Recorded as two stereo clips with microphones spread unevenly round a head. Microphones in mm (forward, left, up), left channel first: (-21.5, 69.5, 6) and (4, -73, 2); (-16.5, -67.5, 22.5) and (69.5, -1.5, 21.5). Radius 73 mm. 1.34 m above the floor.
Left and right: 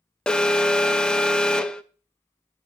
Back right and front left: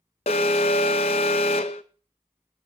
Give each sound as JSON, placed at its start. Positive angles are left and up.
{"t": 0.3, "sound": "an alarm", "azimuth_deg": 180, "distance_m": 0.6}